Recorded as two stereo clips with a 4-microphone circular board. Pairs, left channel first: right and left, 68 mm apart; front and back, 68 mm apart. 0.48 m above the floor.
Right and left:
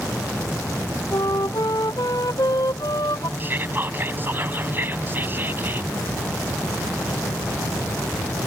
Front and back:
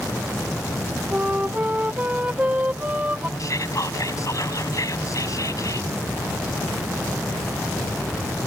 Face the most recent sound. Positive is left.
turn(degrees=30)